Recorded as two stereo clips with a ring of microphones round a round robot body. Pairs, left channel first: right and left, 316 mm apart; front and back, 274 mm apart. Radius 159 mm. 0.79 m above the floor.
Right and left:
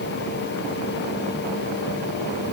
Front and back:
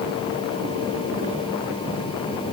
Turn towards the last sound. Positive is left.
No sound to turn to.